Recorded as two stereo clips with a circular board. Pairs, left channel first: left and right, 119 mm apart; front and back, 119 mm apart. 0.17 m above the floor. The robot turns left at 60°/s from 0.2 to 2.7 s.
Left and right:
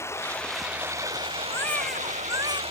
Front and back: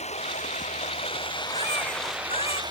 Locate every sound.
0.0 s running water: 20° left; by 2.7 s 130° right
1.5 s a baby crying: 25° left; by 2.6 s 40° right